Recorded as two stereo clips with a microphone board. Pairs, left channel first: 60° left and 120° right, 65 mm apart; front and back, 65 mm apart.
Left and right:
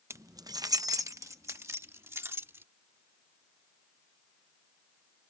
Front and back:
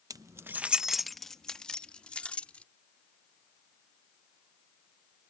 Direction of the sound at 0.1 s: 165° right.